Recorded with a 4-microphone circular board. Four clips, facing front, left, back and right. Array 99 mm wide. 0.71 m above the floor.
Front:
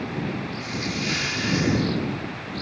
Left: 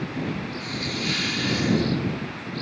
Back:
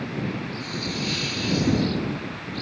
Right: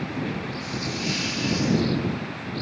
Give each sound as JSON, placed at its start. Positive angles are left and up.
{"t": 0.6, "sound": "a hiss", "azimuth_deg": 25}